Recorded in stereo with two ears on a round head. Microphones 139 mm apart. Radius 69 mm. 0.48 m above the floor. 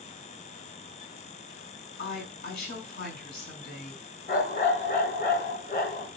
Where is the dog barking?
65° left (ahead or behind), 1.7 m.